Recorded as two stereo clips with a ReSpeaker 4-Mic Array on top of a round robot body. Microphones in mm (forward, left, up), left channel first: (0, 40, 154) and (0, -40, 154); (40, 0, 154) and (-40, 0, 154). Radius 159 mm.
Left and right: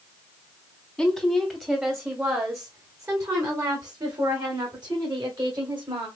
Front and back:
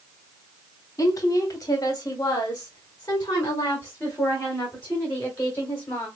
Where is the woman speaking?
5° left, 1.5 m; by 6.1 s 65° right, 3.5 m.